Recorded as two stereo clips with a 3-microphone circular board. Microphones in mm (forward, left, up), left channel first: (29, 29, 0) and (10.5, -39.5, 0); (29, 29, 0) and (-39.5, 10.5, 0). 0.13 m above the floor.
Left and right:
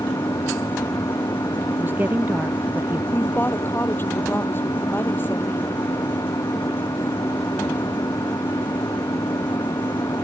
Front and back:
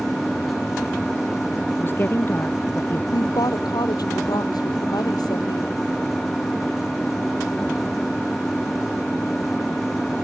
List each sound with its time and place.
0.0 s an engine running: 95° left
1.7 s a woman speaking: 45° right
3.1 s a woman speaking: 20° left